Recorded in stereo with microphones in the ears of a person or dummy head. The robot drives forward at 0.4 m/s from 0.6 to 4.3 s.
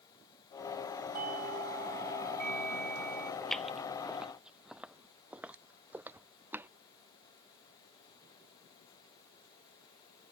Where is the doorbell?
50° right (ahead or behind).